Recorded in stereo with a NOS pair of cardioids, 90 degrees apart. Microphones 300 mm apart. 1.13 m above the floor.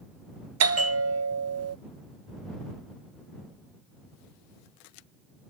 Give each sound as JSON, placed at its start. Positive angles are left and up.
{"t": 0.6, "sound": "a bell", "azimuth_deg": -55}